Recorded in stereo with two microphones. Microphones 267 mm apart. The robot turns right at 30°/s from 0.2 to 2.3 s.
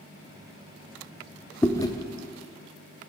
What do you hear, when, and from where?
1.6 s chewing: 10° left (ahead or behind), 0.5 m; by 1.9 s 15° left (ahead or behind), 0.5 m